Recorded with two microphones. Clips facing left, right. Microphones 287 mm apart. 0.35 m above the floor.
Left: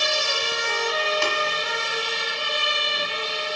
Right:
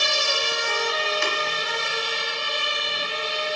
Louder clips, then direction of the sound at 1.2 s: Left 2 dB; 45° left (ahead or behind).